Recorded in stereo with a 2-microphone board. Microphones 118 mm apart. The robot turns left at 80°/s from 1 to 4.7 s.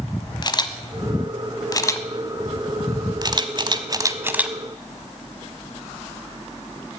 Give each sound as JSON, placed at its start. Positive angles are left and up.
{"t": 0.4, "sound": "a camera shutter", "side_deg": 35, "distance_m": 0.8}